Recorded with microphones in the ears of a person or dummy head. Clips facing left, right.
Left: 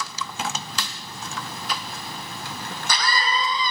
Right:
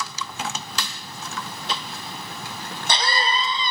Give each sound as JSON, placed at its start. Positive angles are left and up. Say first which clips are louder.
{"t": 1.7, "sound": "a cough", "louder": "right 1 dB", "side_deg": -25, "distance_m": 0.6}